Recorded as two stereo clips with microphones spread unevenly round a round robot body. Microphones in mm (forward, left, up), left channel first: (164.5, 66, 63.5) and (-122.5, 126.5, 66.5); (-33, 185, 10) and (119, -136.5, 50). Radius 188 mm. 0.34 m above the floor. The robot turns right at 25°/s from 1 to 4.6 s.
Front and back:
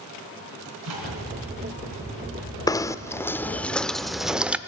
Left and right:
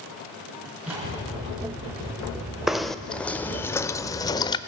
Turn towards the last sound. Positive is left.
turn(degrees=90)